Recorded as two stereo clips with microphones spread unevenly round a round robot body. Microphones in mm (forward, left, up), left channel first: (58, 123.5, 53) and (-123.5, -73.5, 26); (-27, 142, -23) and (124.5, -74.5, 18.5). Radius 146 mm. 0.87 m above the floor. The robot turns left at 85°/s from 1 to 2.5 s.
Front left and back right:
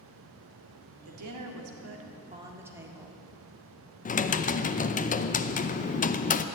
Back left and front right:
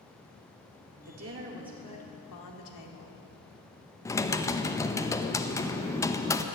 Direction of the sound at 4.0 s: 85° left.